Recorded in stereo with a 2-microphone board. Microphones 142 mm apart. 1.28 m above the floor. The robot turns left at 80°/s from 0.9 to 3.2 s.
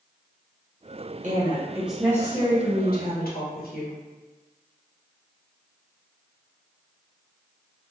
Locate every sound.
1.2 s a woman speaking: 125° right, 1.0 m; by 4.0 s 80° left, 1.0 m